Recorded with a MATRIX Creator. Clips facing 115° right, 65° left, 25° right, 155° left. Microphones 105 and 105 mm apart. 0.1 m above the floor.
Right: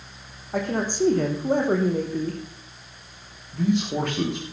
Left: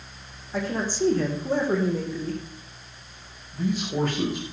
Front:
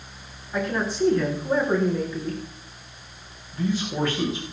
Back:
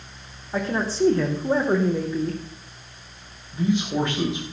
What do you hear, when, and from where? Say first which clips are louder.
0.5 s a man speaking: right 2 dB, back 1 dB; 145° right, 4.5 m
3.5 s a man speaking: right 3 dB, back 3 dB; 135° right, 8.5 m